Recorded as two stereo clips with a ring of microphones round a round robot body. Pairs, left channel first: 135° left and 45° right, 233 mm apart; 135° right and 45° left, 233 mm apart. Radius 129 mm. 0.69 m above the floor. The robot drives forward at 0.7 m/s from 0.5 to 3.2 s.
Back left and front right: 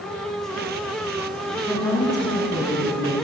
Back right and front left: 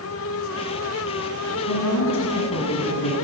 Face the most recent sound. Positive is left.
turn(degrees=-155)